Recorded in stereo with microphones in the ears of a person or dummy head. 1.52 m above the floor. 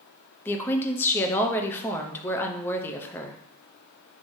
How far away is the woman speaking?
About 0.5 m.